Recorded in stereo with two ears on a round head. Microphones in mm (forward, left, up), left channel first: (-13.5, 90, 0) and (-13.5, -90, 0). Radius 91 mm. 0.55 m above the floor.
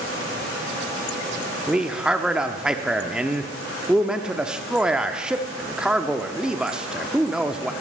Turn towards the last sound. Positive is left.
turn(degrees=-5)  # may be behind; listen again after turning